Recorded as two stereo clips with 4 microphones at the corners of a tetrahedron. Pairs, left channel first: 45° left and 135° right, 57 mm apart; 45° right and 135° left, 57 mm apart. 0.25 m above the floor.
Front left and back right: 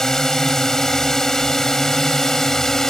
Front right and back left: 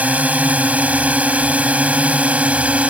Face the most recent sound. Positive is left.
turn(degrees=115)